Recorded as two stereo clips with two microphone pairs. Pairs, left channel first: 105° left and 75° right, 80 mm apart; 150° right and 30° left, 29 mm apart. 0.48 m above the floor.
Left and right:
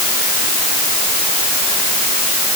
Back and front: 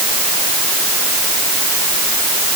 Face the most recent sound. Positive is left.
No sound to turn to.